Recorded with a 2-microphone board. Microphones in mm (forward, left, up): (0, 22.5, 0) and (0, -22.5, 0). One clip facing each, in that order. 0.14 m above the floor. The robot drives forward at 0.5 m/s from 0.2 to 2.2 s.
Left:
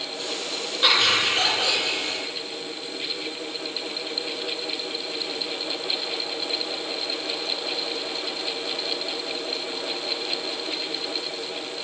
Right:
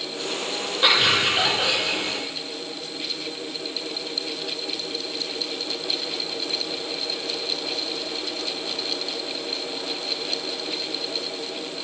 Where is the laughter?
10° right (ahead or behind), 2 m; by 2.2 s 15° right (ahead or behind), 1.8 m.